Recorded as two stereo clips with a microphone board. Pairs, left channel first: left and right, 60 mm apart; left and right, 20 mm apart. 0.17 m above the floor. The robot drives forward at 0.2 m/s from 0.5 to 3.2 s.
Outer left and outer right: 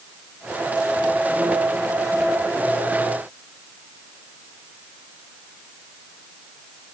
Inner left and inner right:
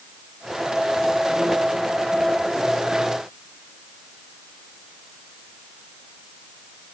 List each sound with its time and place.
Only background noise.